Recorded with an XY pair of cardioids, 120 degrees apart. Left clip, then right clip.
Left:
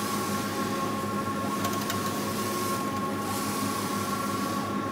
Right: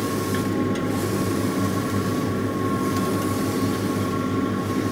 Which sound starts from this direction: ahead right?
A fan, at 0.0 s.